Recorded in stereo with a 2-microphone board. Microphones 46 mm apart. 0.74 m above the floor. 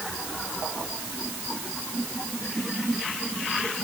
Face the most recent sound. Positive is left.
No sound to turn to.